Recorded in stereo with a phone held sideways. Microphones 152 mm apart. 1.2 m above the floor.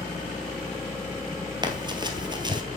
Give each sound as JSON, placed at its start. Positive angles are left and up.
{"t": 1.6, "sound": "running footsteps", "side_deg": -30, "distance_m": 1.7}